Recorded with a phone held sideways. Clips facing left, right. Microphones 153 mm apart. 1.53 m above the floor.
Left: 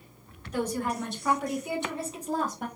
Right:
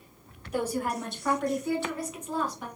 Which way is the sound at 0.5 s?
10° right (ahead or behind).